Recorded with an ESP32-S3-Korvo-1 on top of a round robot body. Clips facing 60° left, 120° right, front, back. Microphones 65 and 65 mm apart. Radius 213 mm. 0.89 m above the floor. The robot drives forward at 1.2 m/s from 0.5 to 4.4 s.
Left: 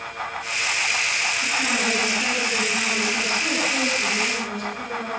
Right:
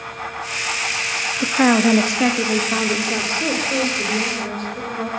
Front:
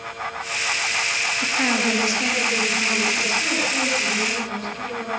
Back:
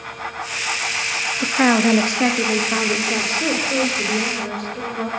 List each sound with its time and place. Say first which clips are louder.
1.4 s a woman speaking: right 13 dB, back 8 dB; 125° right, 1.6 m; by 5.1 s 165° right, 4.5 m